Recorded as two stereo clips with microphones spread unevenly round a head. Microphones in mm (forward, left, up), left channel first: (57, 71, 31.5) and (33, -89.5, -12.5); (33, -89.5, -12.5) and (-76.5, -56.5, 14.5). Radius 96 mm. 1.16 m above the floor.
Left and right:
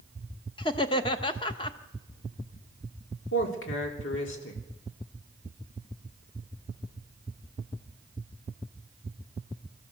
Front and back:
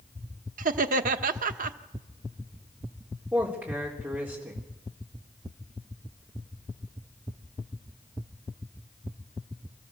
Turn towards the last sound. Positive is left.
turn(degrees=80)